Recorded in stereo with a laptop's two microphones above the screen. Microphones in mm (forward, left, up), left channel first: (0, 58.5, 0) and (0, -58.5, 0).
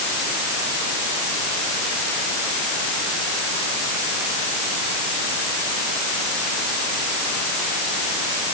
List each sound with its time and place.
Only background noise.